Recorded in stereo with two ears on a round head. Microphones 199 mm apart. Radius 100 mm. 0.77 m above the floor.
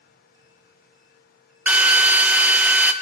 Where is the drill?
5° right (ahead or behind), 0.5 m.